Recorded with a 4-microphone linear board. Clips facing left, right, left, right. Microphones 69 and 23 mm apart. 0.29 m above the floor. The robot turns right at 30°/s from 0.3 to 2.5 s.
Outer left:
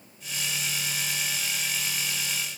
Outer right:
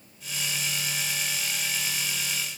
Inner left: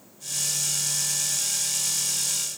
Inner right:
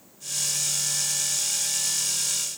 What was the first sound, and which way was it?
Only background noise.